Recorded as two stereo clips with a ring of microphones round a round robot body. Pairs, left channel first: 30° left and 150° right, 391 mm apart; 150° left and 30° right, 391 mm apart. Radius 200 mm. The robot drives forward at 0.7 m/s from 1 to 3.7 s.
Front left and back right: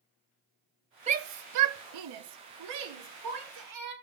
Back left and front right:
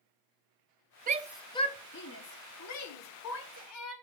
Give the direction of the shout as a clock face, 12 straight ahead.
3 o'clock.